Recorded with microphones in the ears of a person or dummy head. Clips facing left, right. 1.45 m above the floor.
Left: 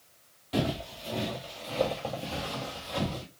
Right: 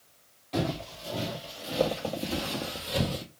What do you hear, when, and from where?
0.5 s footsteps: 10° left (ahead or behind), 1.9 m; by 3.2 s 40° right (ahead or behind), 2.0 m